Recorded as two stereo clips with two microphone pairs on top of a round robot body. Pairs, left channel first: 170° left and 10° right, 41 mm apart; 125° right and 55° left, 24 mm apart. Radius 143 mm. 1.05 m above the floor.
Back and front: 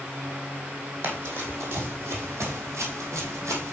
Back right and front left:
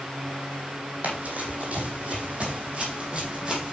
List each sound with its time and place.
1.0 s running footsteps: 25° left, 3.5 m; by 3.7 s 15° right, 3 m